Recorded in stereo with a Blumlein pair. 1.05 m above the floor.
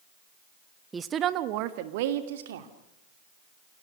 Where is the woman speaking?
15° right, 1.1 m; by 2.7 s 60° right, 3 m.